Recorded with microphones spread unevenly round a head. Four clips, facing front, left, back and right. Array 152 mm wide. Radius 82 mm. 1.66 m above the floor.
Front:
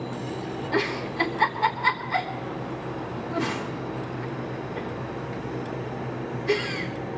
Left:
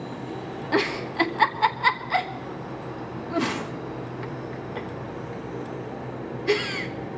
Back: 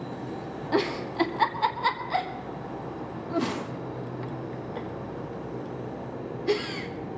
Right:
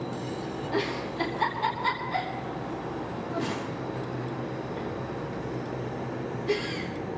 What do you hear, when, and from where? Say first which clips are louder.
0.7 s a giggle: left 6 dB, back 1 dB; 160° left, 1.1 m